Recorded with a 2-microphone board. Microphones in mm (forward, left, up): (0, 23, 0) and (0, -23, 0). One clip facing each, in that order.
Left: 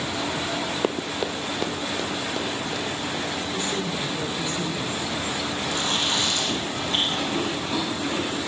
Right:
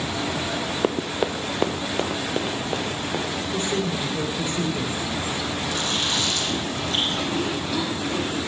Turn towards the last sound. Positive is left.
turn(degrees=30)  # may be behind; listen again after turning